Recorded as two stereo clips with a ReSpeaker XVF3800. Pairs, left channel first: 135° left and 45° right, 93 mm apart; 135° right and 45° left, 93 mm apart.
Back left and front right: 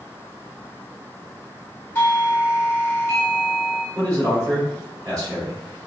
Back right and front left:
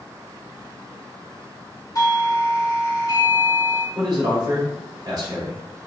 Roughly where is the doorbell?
Behind.